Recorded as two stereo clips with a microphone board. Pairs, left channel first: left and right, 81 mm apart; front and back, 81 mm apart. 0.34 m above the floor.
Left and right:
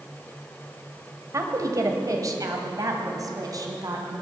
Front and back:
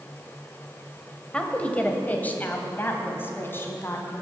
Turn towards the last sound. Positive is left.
turn(degrees=-55)